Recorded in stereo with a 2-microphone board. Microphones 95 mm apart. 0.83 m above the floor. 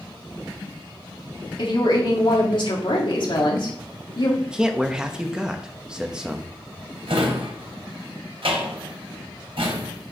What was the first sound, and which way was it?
A woman speaking, 60° left (ahead or behind).